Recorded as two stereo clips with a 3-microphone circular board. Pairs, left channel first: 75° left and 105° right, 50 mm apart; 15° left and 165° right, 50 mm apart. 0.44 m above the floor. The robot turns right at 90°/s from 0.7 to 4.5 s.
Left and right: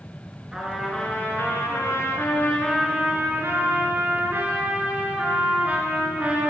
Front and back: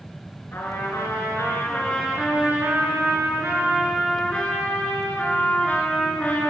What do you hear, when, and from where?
0.5 s a trumpet: 25° right, 2.5 m; by 6.5 s 45° right, 2.5 m